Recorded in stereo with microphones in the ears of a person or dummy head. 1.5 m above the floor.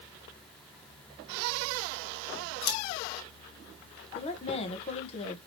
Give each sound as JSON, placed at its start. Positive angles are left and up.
{"t": 2.6, "sound": "scissors", "side_deg": 75, "distance_m": 1.9}
{"t": 4.2, "sound": "a woman speaking", "side_deg": 35, "distance_m": 1.0}